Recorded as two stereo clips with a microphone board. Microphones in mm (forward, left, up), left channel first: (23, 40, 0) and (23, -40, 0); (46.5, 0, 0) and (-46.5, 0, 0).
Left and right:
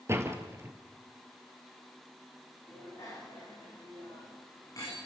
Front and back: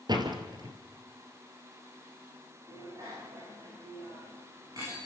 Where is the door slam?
145° right, 2.5 m.